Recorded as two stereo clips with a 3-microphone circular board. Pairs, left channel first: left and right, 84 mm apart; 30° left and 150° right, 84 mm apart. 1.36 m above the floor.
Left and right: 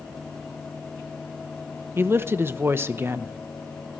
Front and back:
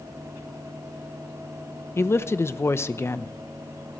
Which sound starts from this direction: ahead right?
A man speaking, at 2.0 s.